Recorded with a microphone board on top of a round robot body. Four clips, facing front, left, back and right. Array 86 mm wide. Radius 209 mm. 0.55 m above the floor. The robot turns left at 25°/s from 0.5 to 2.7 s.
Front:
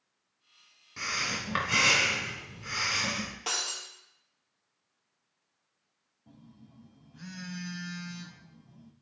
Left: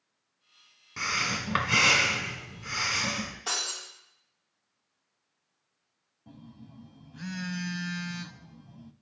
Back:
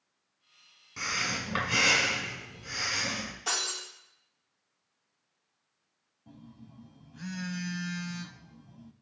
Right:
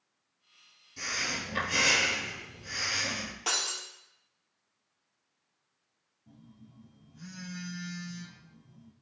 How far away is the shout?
No shout in this recording.